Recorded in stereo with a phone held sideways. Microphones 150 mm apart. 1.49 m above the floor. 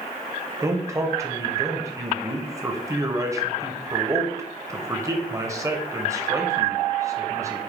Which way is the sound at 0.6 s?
20° right (ahead or behind).